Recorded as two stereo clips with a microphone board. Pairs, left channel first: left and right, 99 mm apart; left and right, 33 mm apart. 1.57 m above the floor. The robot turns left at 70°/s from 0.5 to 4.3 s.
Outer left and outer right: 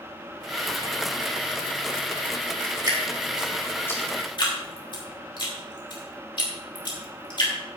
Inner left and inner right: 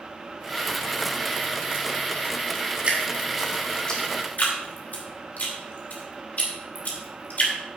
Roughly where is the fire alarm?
I don't hear a fire alarm.